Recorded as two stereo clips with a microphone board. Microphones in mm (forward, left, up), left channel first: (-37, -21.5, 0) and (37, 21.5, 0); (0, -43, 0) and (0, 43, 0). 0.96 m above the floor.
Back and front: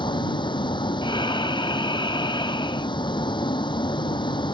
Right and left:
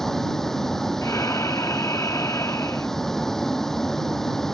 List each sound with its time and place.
0.0 s a vehicle: 175° right
1.0 s breathing: 140° right